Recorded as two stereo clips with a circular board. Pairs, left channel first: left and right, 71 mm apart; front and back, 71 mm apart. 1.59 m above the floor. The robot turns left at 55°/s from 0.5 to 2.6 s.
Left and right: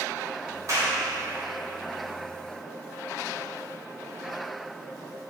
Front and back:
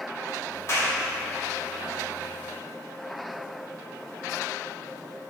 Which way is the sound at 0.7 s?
45° right.